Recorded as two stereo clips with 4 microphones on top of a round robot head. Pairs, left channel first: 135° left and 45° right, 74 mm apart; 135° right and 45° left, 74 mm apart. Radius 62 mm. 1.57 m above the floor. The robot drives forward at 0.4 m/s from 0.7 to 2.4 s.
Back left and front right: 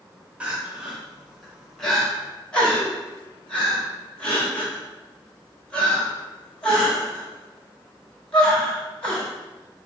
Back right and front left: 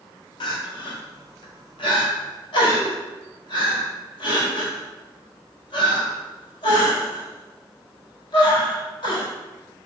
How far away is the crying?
About 0.8 m.